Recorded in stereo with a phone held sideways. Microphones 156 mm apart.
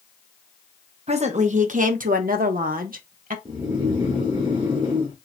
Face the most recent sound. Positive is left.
turn(degrees=-30)  # may be behind; listen again after turning